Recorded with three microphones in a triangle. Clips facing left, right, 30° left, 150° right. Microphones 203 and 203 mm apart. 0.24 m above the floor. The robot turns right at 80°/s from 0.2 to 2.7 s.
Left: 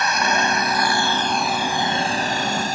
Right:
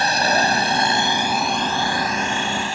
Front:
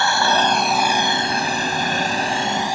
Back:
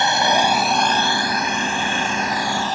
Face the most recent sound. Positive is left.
turn(degrees=100)